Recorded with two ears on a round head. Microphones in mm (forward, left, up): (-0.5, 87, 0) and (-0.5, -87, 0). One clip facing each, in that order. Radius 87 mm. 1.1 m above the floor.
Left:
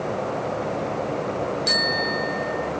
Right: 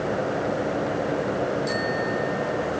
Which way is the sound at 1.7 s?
80° left.